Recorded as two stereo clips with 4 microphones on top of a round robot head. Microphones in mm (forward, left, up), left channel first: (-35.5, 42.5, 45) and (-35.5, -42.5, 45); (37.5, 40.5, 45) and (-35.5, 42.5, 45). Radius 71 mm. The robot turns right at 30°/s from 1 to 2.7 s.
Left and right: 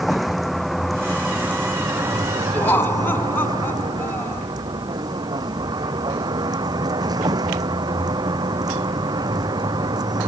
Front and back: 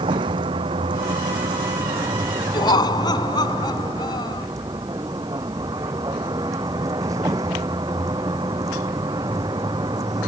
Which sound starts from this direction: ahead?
Laughter, at 2.5 s.